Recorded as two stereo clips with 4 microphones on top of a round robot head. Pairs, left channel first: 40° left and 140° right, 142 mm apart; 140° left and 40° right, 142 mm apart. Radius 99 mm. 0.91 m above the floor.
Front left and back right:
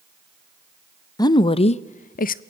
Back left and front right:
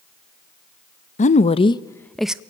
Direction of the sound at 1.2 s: 105° left.